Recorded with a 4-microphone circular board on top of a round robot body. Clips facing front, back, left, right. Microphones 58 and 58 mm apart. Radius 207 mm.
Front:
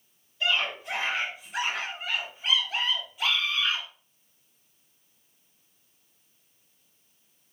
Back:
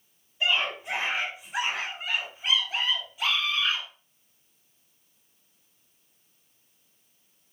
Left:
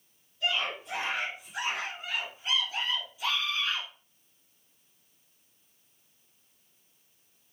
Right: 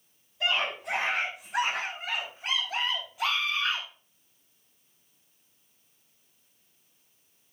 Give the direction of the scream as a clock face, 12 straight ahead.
3 o'clock.